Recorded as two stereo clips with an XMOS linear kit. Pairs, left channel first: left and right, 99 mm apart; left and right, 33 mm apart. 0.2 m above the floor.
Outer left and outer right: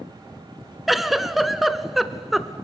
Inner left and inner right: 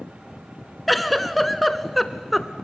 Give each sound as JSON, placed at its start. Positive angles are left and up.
{"t": 0.9, "sound": "a giggle", "side_deg": 0, "distance_m": 0.9}